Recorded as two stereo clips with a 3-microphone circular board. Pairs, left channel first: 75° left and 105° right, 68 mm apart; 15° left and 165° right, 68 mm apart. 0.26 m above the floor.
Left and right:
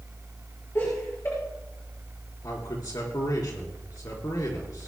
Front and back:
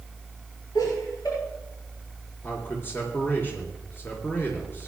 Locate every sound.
0.8 s laughter: 30° left, 6 m
2.4 s a man speaking: 70° left, 3.5 m